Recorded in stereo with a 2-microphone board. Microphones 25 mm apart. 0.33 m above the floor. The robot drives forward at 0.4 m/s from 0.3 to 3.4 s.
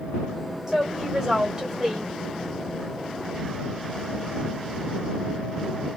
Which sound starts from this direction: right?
A woman speaking, at 0.7 s.